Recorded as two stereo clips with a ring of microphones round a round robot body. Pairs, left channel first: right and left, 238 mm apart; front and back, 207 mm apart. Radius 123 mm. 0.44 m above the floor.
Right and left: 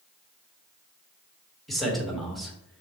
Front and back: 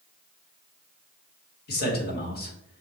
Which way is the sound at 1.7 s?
Straight ahead.